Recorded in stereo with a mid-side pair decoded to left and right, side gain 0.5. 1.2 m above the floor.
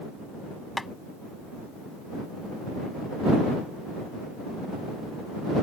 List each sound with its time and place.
0.8 s tapping: 15° left